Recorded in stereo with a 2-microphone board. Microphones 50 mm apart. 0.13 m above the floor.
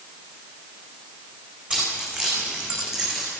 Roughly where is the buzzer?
No buzzer in this recording.